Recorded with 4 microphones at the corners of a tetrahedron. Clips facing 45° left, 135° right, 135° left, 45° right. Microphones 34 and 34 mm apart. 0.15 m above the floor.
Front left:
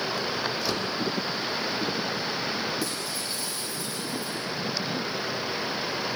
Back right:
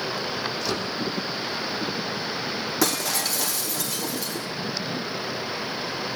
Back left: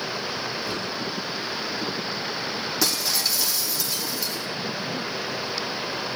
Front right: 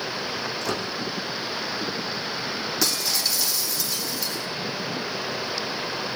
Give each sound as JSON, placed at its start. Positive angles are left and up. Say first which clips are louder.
{"t": 0.6, "sound": "a microwave", "louder": "back right 1 dB, front right 1 dB", "azimuth_deg": -40, "distance_m": 6.5}
{"t": 2.8, "sound": "breaking glass", "louder": "back right 7 dB, back left 1 dB", "azimuth_deg": -135, "distance_m": 2.5}